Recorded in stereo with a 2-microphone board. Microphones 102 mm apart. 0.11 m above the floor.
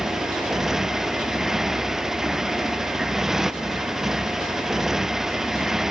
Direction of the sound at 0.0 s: 5° right (ahead or behind).